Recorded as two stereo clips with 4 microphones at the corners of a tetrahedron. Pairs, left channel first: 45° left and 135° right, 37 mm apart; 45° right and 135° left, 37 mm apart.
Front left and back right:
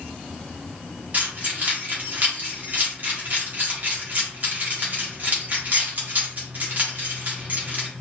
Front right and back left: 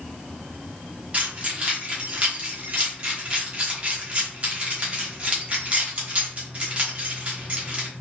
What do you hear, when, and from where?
1.1 s keys jangling: 175° right, 1.0 m